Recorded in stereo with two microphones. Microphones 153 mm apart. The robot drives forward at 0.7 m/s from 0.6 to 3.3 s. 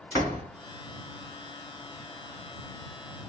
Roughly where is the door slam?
Centre.